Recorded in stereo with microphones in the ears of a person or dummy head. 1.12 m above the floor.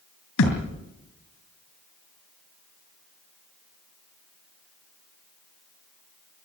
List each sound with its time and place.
0.4 s a thud: 70° left (ahead or behind), 4.5 m